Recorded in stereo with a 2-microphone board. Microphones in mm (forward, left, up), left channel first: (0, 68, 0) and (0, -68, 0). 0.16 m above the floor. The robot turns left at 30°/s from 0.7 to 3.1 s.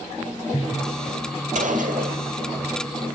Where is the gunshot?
70° right (ahead or behind), 2.5 m.